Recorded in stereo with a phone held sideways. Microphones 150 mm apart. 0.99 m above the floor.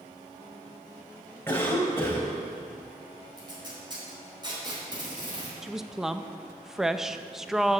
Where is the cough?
15° left (ahead or behind), 4.5 m.